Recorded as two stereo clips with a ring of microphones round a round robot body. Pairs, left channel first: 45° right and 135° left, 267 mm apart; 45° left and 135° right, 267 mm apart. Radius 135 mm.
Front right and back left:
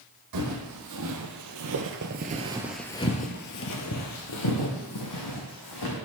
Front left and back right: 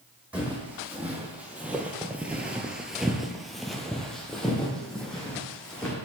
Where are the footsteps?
140° left, 1.6 m; by 5.9 s 40° right, 2 m.